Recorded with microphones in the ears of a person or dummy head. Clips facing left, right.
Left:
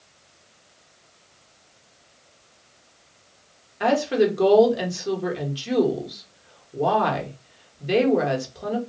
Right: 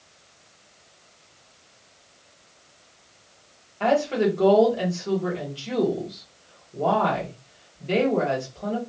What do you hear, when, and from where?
3.8 s a woman speaking: 20° left (ahead or behind), 1.0 m